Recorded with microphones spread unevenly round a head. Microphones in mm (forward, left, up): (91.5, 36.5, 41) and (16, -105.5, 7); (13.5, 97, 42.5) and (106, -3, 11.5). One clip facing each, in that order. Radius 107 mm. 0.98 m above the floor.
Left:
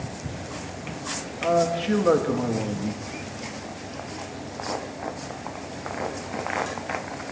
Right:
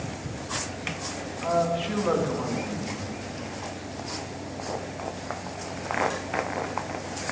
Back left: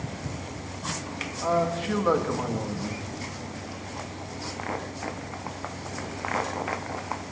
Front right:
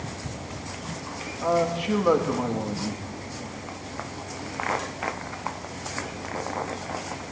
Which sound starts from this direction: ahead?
A man speaking, at 1.4 s.